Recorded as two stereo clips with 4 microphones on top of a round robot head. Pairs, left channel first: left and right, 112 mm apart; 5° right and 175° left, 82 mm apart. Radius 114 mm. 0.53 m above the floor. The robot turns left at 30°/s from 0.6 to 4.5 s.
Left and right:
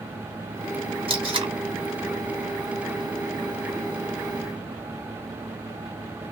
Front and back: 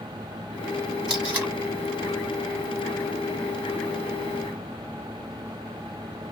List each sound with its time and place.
1.1 s tape being pulled: 110° right, 1.8 m; by 1.5 s 120° right, 1.8 m